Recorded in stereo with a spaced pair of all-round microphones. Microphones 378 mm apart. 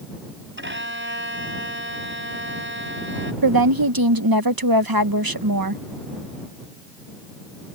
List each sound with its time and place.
0.6 s a violin: 30° right (ahead or behind)
3.4 s a woman speaking: 65° right (ahead or behind)